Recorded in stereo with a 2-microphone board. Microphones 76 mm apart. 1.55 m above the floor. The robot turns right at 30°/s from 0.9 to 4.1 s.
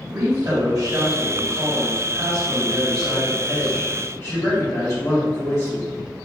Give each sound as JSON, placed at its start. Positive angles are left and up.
{"t": 0.1, "sound": "a woman speaking", "azimuth_deg": -60, "distance_m": 1.8}